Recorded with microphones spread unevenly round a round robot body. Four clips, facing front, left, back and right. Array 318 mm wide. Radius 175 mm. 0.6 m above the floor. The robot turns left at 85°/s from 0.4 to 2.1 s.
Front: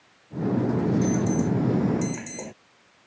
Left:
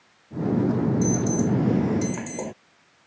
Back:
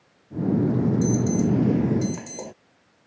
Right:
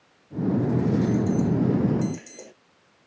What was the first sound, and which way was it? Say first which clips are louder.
An alarm: even, back 2 dB; 175° left.